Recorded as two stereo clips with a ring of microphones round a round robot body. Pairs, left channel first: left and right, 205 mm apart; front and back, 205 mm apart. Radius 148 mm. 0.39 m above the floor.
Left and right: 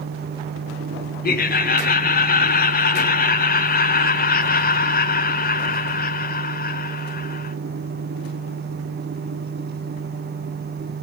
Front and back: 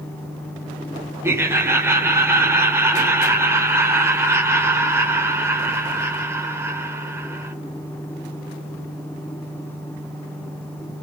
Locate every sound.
1.2 s laughter: 105° left, 1.2 m